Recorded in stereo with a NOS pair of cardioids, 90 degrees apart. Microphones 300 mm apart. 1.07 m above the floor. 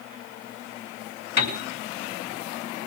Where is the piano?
55° left, 4 m.